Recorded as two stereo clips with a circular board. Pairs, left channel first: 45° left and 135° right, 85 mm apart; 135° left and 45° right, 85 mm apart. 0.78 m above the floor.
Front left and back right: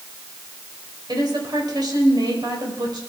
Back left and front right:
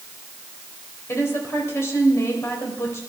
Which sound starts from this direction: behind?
A woman speaking, at 1.1 s.